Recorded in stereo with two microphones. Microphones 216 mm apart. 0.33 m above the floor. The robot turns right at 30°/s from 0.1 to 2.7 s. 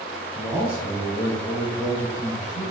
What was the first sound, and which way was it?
A man speaking, 20° right.